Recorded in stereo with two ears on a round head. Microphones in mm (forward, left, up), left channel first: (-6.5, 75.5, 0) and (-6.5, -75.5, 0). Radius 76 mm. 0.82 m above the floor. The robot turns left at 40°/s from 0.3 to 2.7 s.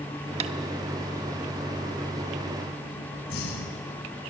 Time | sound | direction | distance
0.4 | tapping | 40° right (ahead or behind) | 0.8 m
3.3 | breathing | 70° left (ahead or behind) | 3.5 m